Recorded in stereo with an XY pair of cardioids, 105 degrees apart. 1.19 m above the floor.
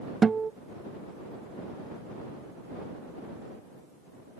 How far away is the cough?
I don't hear a cough.